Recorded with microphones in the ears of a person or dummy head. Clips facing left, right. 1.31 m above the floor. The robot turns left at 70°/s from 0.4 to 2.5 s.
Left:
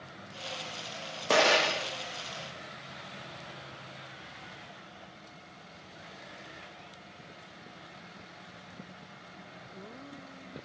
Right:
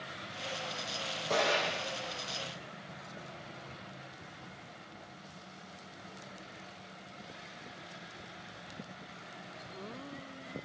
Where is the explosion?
95° left, 0.7 m; by 1.9 s 50° left, 0.7 m.